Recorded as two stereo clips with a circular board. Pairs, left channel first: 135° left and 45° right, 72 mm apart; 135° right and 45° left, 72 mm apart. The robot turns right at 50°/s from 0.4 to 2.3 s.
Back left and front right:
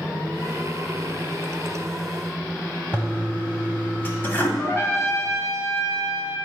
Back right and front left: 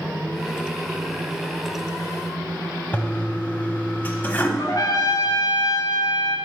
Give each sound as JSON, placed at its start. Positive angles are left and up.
{"t": 2.9, "sound": "a toilet flushing", "azimuth_deg": 175, "distance_m": 1.0}
{"t": 4.6, "sound": "a trumpet", "azimuth_deg": -170, "distance_m": 1.2}